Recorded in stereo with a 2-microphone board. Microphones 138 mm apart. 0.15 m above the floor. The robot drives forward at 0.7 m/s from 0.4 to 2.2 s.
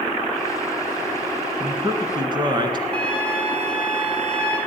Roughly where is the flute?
Centre.